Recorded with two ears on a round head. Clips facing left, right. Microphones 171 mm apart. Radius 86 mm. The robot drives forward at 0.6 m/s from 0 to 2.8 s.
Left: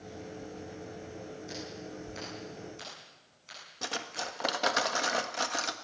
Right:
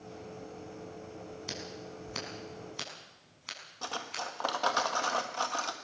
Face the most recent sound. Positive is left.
turn(degrees=20)  # may be behind; listen again after turning